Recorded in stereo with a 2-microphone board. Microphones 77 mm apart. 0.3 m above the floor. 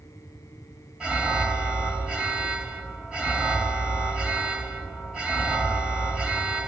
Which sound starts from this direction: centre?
An alarm, at 1.0 s.